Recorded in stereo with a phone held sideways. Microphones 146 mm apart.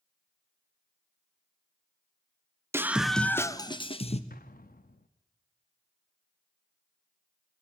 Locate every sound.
2.7 s a scream: 15° right (ahead or behind), 0.9 m; by 4.2 s 45° left (ahead or behind), 1.2 m
4.3 s an explosion: 85° left, 0.8 m